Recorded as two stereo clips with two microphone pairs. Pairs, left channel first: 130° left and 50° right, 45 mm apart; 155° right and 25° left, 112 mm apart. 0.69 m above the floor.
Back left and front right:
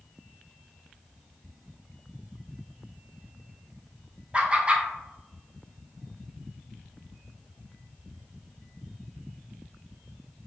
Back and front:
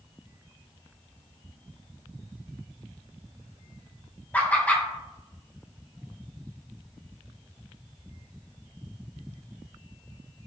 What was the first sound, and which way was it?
Laughter, 90° right.